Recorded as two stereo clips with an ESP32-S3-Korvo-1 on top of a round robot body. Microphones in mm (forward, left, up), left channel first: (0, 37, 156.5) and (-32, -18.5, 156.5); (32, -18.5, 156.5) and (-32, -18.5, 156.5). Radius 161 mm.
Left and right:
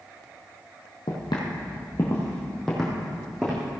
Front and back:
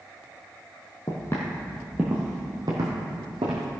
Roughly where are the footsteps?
Ahead left.